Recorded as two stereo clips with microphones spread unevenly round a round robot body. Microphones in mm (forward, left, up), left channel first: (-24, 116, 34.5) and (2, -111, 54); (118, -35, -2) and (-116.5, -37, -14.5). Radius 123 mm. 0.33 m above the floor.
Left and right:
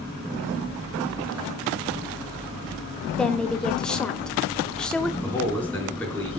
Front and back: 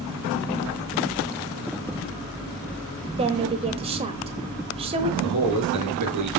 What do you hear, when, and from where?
3.2 s a woman speaking: 170° left, 1.0 m
5.2 s a man speaking: straight behind, 5 m